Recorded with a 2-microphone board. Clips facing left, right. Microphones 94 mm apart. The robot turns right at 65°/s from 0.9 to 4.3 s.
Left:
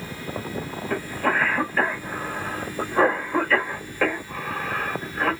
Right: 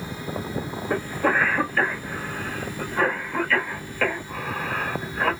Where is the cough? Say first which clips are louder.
Right 2 dB; 25° right (ahead or behind), 1.5 m; by 5.3 s centre (ahead or behind), 1.5 m.